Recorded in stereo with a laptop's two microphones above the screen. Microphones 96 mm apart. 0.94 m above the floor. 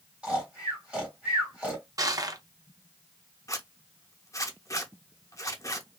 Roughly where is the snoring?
Centre.